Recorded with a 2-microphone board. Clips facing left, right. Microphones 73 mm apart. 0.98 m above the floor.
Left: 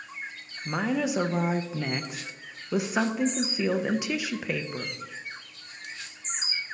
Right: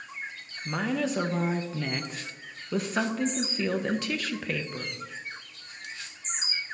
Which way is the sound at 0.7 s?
10° left (ahead or behind).